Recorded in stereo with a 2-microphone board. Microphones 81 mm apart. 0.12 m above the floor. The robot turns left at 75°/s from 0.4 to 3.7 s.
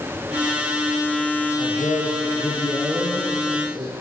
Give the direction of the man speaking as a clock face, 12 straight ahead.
8 o'clock.